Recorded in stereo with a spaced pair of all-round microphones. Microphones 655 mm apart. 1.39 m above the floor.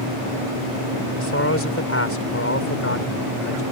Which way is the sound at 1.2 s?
20° left (ahead or behind).